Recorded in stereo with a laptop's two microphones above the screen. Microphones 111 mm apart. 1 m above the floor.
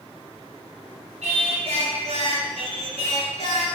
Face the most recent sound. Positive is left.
turn(degrees=-70)  # may be behind; listen again after turning